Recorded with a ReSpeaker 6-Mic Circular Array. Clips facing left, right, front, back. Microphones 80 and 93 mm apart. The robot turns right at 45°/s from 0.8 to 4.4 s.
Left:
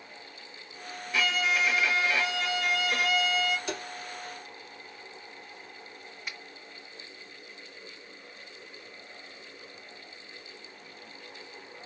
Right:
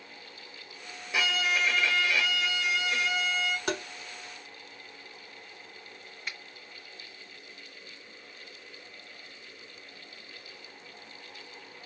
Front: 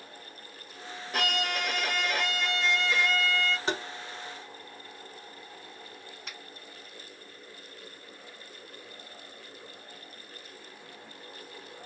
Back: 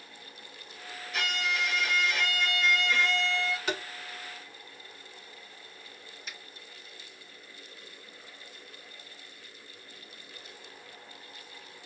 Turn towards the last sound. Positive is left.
turn(degrees=15)